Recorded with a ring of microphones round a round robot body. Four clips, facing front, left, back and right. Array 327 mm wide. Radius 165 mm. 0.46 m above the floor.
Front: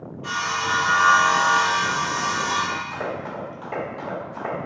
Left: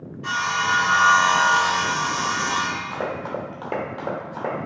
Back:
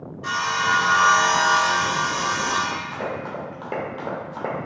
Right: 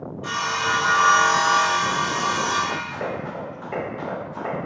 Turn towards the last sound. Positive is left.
turn(degrees=160)